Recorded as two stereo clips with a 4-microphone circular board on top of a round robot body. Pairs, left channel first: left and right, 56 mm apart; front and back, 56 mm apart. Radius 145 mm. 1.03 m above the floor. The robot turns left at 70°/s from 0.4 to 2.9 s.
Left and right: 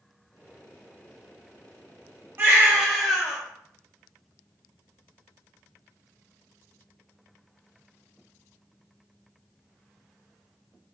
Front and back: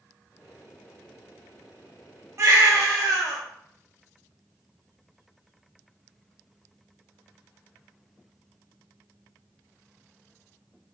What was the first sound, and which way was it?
A baby crying, 140° right.